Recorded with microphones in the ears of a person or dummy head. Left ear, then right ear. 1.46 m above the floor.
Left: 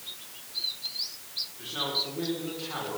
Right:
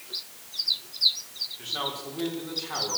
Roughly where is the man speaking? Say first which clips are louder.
Left 3 dB; centre.